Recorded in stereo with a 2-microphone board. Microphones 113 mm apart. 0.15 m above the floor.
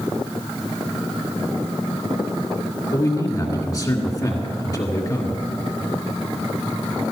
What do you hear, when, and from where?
2.9 s a man speaking: 35° left (ahead or behind), 1.8 m